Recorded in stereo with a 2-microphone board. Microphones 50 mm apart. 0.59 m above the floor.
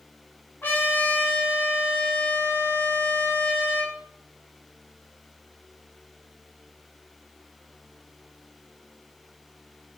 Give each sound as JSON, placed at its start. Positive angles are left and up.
{"t": 0.6, "sound": "a trumpet", "side_deg": 45, "distance_m": 1.0}